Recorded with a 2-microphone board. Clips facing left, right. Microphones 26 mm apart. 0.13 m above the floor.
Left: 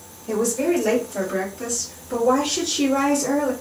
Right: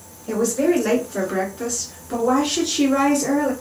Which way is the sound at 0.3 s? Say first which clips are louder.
Right 2 dB; 25° right (ahead or behind).